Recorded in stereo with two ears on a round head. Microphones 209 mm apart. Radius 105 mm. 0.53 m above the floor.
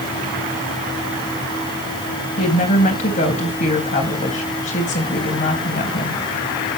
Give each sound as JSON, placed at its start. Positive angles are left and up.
{"t": 2.4, "sound": "a woman speaking", "side_deg": 35, "distance_m": 3.0}